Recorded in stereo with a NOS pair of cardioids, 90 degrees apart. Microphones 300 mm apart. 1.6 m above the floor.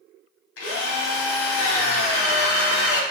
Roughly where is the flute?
I don't hear a flute.